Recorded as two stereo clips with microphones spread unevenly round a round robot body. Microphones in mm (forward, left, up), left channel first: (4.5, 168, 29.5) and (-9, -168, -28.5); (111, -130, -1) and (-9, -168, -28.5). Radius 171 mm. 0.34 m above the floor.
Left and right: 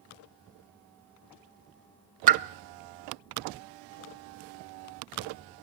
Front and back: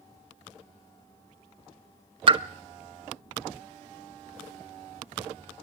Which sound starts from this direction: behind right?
A pop, at 2.3 s.